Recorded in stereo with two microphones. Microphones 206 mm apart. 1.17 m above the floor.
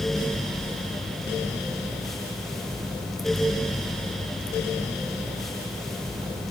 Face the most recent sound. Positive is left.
No sound to turn to.